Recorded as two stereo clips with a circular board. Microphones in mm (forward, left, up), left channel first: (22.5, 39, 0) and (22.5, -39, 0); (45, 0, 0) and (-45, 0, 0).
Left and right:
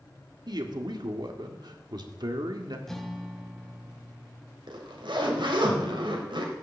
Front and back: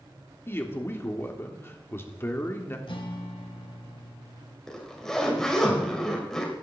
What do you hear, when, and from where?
0.5 s a man speaking: 65° right, 1.6 m
2.9 s a guitar: 5° left, 1.4 m
4.7 s a zipper: 85° right, 2 m